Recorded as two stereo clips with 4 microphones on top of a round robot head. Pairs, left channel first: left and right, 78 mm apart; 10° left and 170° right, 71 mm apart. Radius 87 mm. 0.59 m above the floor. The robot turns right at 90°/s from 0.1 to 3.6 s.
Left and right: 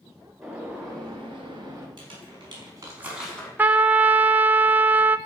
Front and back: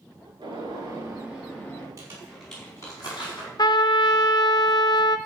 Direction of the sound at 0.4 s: 175° left.